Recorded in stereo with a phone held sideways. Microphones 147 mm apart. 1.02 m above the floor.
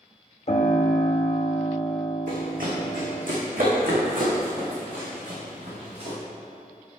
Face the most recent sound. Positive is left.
turn(degrees=-55)  # may be behind; listen again after turning